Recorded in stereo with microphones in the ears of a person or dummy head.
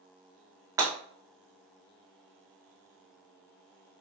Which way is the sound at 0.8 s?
20° right (ahead or behind).